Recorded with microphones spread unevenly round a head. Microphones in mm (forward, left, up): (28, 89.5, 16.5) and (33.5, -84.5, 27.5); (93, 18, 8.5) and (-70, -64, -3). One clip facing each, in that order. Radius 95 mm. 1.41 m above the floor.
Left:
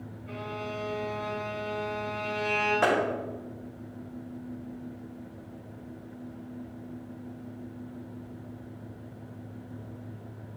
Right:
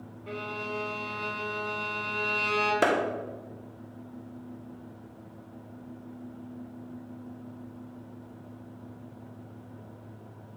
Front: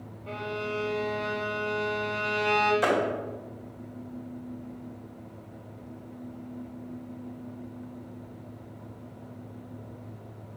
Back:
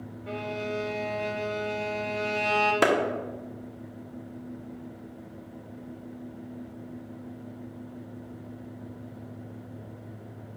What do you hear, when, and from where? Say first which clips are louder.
0.3 s a violin: right 1 dB, back 1 dB; 80° right, 1.7 m
2.8 s a clap: right 1 dB, back 6 dB; 140° right, 1.5 m